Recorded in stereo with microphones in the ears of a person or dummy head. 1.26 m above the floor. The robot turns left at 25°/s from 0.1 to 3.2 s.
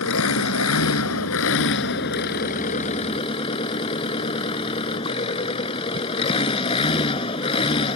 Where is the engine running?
105° left; by 8.0 s 25° left.